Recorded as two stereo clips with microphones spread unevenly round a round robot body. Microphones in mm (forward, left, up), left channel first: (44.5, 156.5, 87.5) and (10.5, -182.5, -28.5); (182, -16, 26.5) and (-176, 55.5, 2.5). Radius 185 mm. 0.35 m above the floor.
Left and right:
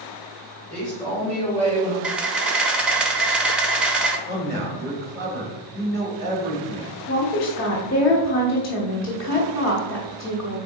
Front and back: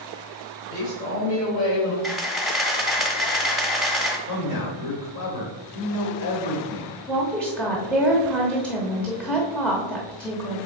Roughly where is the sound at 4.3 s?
Ahead.